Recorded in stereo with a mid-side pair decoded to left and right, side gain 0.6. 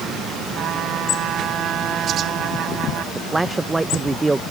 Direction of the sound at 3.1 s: 20° right.